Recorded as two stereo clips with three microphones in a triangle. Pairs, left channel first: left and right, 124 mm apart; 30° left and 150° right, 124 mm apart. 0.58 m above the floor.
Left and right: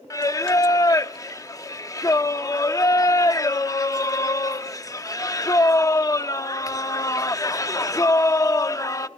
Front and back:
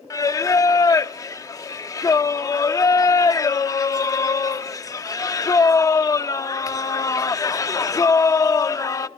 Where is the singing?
60° left, 0.7 m.